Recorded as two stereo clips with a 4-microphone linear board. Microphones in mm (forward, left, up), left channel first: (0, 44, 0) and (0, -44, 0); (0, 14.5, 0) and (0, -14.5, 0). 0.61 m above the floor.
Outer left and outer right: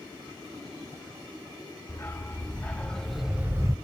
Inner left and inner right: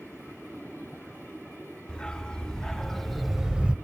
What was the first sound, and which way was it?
A dog barking, 30° left (ahead or behind).